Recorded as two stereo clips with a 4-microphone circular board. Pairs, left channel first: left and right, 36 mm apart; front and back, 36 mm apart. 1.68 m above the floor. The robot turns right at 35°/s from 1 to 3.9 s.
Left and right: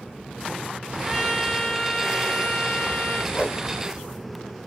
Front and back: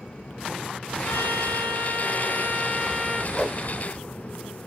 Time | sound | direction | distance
1.0 | a trumpet | 15° right | 0.7 m
3.3 | a whoosh | 85° left | 1.0 m